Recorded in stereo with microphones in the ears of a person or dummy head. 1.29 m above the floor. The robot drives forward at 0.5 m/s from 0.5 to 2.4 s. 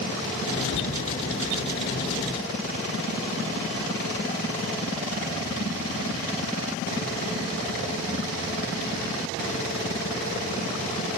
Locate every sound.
0.7 s a cupboard door: 80° left, 2.5 m; by 0.9 s 75° left (ahead or behind), 2.5 m